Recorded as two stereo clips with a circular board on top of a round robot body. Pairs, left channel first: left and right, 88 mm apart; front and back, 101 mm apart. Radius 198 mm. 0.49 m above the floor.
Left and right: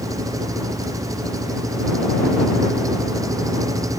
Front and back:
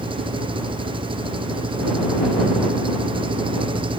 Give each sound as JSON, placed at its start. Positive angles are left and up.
{"t": 0.0, "sound": "an engine running", "azimuth_deg": -140}